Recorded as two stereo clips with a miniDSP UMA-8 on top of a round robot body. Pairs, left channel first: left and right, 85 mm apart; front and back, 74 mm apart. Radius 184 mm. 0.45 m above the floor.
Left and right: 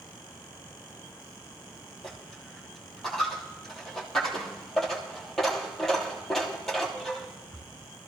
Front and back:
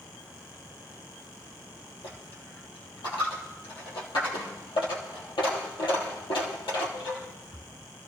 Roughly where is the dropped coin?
Ahead.